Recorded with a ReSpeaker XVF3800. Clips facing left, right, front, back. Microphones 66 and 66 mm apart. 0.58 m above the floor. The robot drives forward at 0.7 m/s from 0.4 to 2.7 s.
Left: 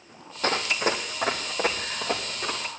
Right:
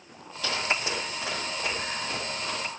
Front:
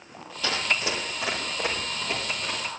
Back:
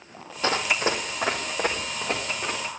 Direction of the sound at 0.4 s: 130° left.